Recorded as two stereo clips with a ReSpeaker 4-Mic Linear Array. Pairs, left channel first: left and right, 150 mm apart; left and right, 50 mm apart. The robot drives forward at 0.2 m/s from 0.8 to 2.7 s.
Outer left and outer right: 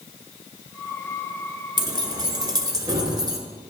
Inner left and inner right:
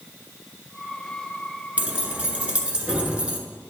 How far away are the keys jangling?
About 0.8 m.